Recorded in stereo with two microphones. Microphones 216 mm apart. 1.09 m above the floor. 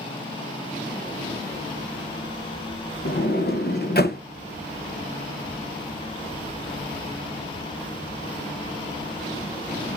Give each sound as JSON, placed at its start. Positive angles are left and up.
{"t": 3.0, "sound": "a sliding door", "side_deg": 50, "distance_m": 0.5}